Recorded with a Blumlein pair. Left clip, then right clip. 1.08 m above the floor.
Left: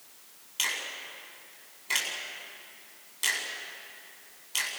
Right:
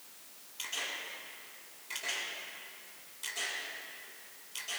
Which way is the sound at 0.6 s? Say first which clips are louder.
Left 6 dB; 55° left.